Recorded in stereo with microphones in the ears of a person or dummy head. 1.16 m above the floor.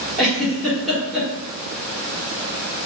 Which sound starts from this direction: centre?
A giggle, at 0.2 s.